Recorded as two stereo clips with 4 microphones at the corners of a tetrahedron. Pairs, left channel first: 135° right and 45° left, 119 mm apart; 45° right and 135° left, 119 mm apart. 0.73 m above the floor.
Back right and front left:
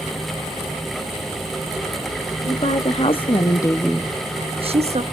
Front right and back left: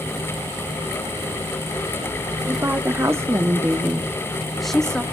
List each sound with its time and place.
2.4 s a woman speaking: 155° right, 1.5 m; by 5.0 s 40° left, 1.1 m